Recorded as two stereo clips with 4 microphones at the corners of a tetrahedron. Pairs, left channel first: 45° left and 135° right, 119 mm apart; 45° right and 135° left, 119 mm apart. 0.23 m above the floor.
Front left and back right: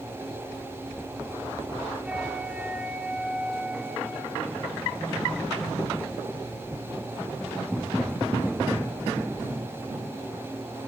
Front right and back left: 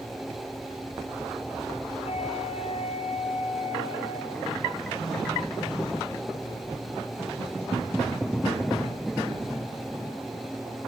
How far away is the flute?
About 3.5 m.